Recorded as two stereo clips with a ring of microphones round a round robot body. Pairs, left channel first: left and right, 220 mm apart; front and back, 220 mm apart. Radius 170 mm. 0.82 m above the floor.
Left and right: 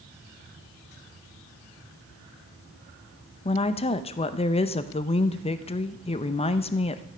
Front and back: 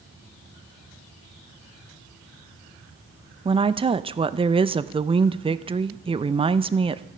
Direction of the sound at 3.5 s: 130° left.